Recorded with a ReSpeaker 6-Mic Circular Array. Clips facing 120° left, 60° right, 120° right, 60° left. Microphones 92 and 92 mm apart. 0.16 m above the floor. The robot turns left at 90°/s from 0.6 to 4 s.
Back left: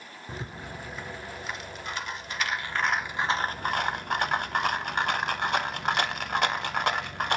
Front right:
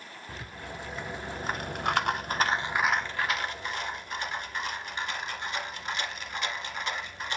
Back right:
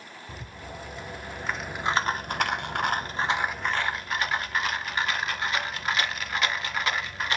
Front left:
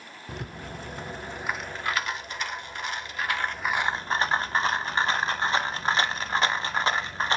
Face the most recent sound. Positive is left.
turn(degrees=115)